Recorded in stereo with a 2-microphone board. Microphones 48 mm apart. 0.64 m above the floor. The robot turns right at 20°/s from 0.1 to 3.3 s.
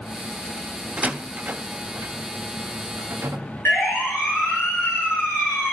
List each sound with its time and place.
1.0 s a door slam: 25° right (ahead or behind), 1.3 m; by 3.4 s 65° right (ahead or behind), 1.3 m
3.6 s a siren: 65° left (ahead or behind), 9 m